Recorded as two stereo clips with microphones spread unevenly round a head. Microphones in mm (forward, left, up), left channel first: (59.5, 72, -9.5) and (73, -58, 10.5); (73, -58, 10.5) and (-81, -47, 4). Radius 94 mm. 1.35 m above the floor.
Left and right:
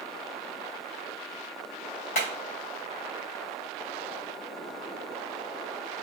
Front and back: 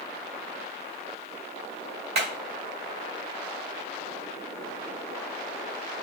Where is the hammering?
115° left, 3 m.